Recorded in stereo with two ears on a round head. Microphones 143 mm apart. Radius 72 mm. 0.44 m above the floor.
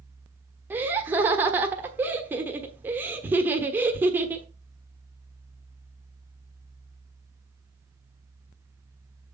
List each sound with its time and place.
0.7 s laughter: 15° right (ahead or behind), 1.2 m